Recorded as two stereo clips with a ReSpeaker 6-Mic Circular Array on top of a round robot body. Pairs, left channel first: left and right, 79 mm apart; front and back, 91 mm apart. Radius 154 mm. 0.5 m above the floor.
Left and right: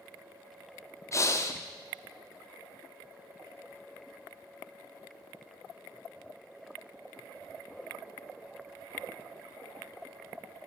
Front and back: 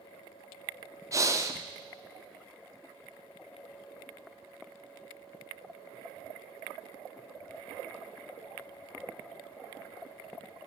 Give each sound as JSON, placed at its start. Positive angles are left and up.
{"t": 1.1, "sound": "breathing", "azimuth_deg": 135, "distance_m": 1.1}